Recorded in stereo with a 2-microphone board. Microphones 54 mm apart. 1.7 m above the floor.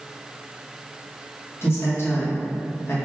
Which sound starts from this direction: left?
A man speaking, at 1.6 s.